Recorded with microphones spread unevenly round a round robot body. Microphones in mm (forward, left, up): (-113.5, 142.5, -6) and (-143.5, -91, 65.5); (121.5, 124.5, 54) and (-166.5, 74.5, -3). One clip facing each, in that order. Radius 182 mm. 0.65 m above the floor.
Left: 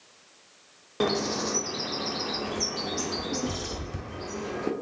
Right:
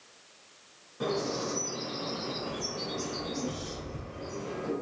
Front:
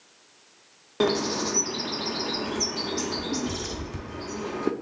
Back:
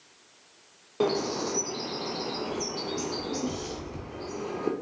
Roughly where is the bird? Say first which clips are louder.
Left 4 dB, front 2 dB; left.